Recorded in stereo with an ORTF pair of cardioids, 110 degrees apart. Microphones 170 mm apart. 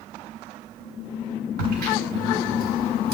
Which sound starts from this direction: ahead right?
A crack, at 1.6 s.